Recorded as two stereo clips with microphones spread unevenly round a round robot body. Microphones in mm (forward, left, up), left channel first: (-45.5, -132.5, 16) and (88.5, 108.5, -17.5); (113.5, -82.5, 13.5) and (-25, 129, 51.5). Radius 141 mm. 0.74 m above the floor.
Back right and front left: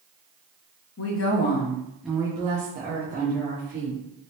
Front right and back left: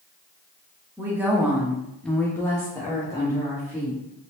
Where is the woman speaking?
150° right, 0.7 m; by 4.0 s 20° left, 1.5 m.